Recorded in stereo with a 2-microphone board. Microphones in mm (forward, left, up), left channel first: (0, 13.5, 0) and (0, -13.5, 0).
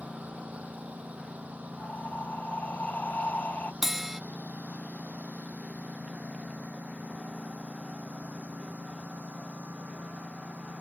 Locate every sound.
0.0 s a lawn mower: 60° right (ahead or behind); by 10.8 s 85° right
1.8 s breathing: 80° left
3.8 s a bell: 10° right (ahead or behind)